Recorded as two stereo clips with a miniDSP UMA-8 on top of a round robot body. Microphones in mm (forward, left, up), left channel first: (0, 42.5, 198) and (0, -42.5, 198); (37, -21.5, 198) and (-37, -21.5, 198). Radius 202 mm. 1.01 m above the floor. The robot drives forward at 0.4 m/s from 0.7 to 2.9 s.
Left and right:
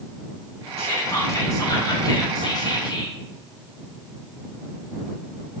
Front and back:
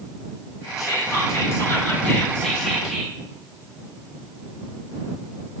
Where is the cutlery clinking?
I don't hear cutlery clinking.